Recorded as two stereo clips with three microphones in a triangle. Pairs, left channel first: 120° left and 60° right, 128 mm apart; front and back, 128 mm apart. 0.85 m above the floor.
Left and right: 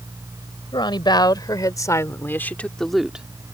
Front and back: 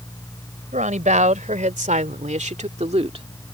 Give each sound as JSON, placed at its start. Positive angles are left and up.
{"t": 0.7, "sound": "a woman speaking", "azimuth_deg": 170}